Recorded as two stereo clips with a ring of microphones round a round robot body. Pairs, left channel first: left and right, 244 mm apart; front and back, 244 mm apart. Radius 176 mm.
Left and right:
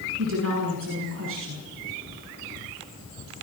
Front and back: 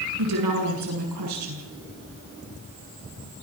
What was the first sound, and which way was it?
A woman speaking, 145° right.